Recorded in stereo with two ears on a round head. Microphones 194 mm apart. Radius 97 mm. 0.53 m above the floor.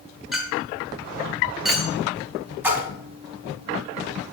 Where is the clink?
Centre (ahead or behind), 1.3 m.